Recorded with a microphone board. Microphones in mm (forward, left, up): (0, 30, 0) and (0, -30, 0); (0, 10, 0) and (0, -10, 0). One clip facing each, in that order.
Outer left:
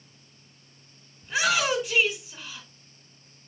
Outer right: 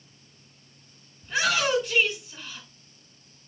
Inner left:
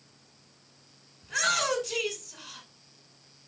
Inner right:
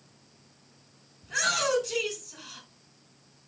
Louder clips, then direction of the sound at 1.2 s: Even, even; 10° left (ahead or behind).